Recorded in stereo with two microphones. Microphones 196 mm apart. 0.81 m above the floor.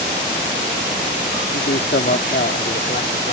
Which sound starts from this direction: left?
A man speaking, at 1.5 s.